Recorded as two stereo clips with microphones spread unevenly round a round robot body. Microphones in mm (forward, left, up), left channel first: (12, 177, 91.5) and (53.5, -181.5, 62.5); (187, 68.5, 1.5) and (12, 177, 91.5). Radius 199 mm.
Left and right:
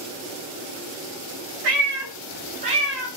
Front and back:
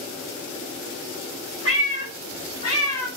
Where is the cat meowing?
115° right, 1.3 m; by 3.1 s 120° left, 0.7 m.